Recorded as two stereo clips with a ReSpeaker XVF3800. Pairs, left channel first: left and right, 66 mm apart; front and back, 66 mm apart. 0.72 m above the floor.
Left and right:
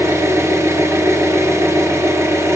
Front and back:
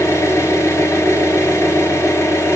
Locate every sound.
0.0 s an engine running: 45° right, 3.5 m